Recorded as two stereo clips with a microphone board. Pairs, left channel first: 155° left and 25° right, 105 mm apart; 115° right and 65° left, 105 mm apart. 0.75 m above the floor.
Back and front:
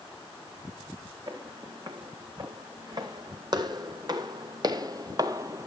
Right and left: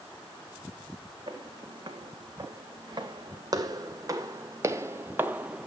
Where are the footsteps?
25° left, 3 m; by 5.7 s 5° right, 0.8 m.